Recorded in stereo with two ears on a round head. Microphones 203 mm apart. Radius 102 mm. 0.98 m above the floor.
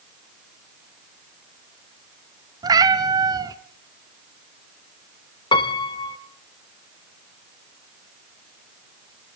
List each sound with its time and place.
2.6 s a cat meowing: 15° right (ahead or behind), 1.3 m
5.5 s a piano: 20° left (ahead or behind), 1.4 m